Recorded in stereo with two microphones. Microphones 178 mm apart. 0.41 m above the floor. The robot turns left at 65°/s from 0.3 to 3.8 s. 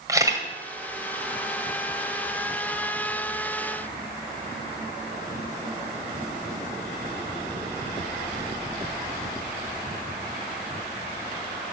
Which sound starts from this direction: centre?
A camera shutter, at 0.1 s.